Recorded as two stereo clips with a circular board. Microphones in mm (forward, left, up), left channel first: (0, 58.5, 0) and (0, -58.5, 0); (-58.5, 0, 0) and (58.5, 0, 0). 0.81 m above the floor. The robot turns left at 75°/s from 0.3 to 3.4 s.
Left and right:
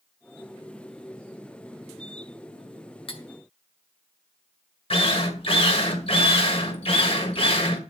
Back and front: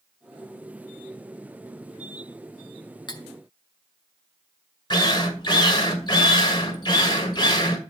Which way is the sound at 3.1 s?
130° left.